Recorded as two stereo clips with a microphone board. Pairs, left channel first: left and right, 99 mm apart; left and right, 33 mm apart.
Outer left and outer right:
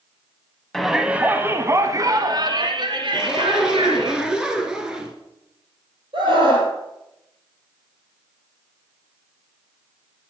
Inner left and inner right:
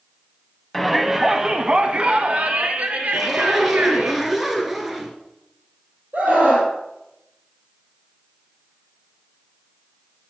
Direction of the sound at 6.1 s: 60° right (ahead or behind).